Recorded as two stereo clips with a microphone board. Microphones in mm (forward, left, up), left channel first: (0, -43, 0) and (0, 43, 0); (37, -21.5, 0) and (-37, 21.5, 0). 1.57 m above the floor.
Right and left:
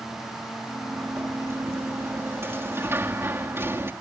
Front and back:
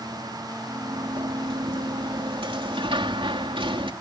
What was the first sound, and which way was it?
A sliding door, 150° left.